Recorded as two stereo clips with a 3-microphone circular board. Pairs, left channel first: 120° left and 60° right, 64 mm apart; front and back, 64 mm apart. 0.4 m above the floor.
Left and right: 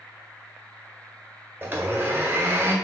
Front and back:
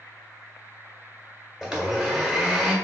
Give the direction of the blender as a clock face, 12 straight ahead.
3 o'clock.